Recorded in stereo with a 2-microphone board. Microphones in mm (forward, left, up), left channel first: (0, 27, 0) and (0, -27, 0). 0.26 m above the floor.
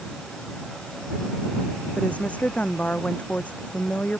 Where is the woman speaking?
25° left (ahead or behind).